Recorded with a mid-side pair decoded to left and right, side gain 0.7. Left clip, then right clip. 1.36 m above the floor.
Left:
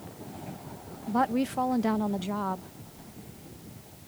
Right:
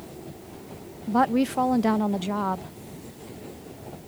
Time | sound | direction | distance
1.1 | a woman speaking | 25° right | ?